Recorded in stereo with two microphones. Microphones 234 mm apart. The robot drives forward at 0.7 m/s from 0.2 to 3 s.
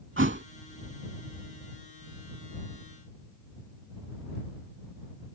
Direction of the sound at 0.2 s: 60° right (ahead or behind).